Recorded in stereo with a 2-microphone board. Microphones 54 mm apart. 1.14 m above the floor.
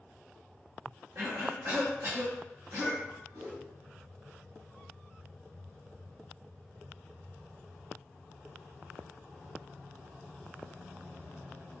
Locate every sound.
1.1 s a cough: 60° right (ahead or behind), 0.8 m
3.3 s a whoosh: 60° right (ahead or behind), 1.2 m